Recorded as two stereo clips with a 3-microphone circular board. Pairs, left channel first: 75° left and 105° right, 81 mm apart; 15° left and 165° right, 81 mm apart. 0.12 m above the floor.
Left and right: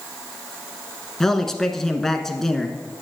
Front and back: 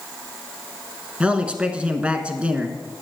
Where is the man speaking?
150° left, 1.1 m.